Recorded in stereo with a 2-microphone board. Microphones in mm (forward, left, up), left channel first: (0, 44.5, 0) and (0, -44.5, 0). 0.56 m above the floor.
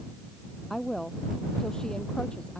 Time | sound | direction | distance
0.7 | a woman speaking | 5° left (ahead or behind) | ?